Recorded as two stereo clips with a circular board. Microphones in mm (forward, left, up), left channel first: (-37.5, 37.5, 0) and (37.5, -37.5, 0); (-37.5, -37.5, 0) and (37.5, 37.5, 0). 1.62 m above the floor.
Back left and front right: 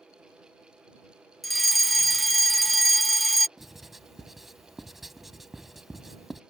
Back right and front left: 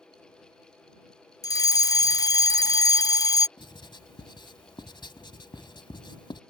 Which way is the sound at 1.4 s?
135° right.